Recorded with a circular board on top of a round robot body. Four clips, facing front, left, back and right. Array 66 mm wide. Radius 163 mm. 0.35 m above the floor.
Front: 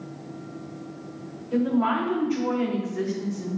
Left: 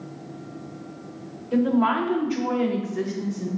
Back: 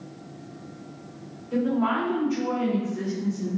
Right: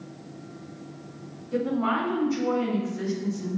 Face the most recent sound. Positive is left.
turn(degrees=60)